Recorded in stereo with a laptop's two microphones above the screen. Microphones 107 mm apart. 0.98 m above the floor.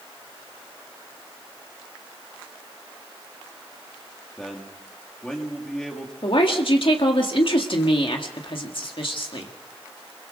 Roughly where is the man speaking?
Centre.